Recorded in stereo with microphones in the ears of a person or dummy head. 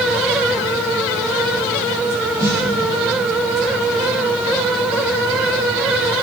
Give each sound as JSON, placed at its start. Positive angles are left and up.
{"t": 2.4, "sound": "a snare drum", "side_deg": -15, "distance_m": 5.5}